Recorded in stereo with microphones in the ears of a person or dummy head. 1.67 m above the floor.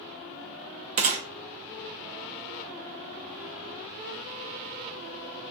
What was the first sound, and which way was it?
A gunshot, 40° right (ahead or behind).